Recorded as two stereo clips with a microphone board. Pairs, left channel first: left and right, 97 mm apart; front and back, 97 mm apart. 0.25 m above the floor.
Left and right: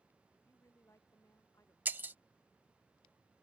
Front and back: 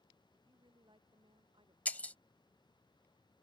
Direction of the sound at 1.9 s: 50° right.